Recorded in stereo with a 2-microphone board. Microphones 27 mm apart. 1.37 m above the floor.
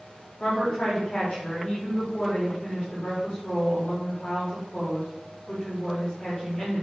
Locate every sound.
0.4 s a woman speaking: 35° left (ahead or behind), 4.5 m